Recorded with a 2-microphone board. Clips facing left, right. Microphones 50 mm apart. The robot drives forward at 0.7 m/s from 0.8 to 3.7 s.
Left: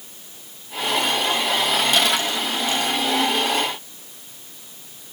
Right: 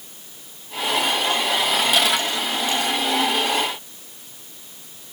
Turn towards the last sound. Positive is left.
No sound to turn to.